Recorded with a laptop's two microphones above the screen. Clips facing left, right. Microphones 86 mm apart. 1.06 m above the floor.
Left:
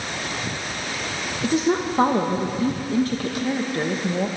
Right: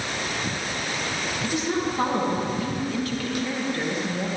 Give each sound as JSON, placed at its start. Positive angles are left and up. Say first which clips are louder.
{"t": 1.4, "sound": "a woman speaking", "louder": "left 6 dB", "side_deg": 35, "distance_m": 1.2}